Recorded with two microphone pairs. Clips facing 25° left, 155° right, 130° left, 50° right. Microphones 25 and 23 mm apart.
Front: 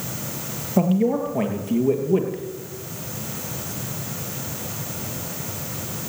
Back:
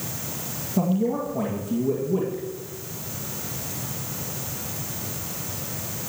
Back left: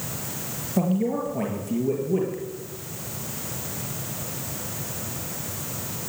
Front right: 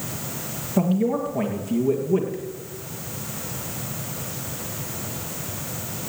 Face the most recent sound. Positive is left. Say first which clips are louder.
# front 4 dB, front right 2 dB
turn(degrees=35)